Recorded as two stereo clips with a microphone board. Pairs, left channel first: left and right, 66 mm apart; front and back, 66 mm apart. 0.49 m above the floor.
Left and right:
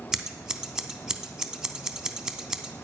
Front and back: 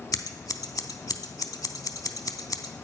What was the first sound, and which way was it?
Scissors, 10° right.